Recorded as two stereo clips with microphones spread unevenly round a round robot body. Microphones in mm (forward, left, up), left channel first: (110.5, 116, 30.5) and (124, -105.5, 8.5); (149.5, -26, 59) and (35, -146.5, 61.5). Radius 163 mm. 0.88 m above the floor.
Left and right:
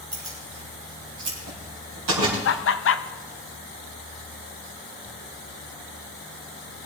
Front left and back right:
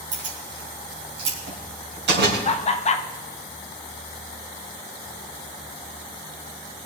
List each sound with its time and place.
0.1 s keys jangling: 150° right, 4 m; by 2.4 s 130° right, 3 m
2.5 s laughter: 90° left, 0.8 m